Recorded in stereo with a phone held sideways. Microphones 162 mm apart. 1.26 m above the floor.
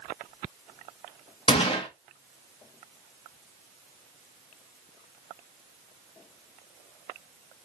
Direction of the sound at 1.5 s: 35° left (ahead or behind).